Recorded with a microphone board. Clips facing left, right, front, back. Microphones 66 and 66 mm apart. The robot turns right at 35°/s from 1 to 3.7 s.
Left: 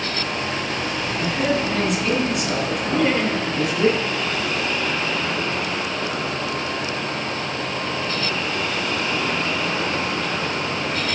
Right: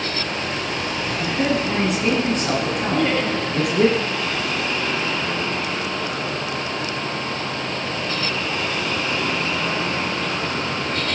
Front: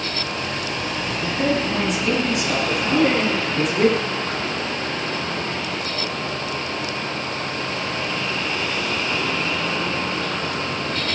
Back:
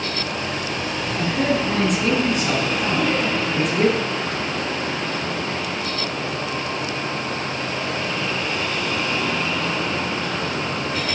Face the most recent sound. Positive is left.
turn(degrees=30)